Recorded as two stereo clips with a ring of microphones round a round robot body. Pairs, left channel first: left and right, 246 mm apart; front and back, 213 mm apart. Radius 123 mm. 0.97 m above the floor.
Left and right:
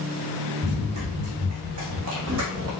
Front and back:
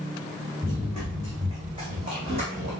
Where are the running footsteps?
100° right, 4.5 m; by 2.7 s 120° right, 3 m.